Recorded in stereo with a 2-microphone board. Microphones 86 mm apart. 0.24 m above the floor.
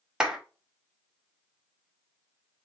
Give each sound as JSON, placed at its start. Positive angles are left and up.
{"t": 0.2, "sound": "a clap", "side_deg": -10, "distance_m": 1.6}